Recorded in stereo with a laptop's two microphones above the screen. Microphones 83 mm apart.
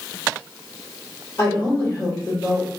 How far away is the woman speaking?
About 1.5 m.